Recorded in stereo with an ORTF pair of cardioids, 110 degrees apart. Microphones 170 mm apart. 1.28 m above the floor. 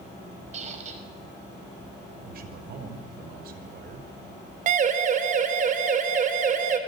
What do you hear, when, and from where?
0.5 s a squeak: 45° right, 5.5 m
2.2 s a man speaking: 65° right, 5 m
4.7 s a siren: 50° right, 3.5 m